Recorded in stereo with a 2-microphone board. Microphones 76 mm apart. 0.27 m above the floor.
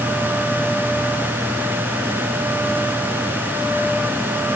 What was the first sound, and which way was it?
Only background noise.